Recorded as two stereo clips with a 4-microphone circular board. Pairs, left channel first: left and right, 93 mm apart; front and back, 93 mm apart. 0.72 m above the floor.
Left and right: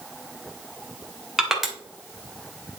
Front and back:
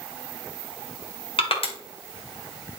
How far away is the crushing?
About 2 m.